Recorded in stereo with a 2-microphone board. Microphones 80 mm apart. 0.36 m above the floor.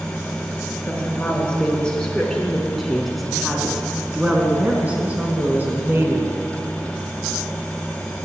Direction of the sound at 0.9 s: 20° left (ahead or behind).